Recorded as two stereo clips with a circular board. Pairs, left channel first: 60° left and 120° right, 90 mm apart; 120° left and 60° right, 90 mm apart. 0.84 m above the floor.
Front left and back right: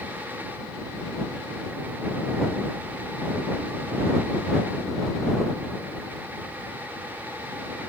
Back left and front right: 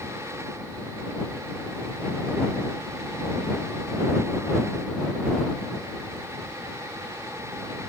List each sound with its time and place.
Only background noise.